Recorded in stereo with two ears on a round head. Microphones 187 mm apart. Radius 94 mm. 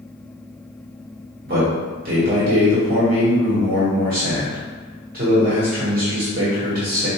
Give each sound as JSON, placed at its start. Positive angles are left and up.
{"t": 1.4, "sound": "a man speaking", "side_deg": -45, "distance_m": 1.4}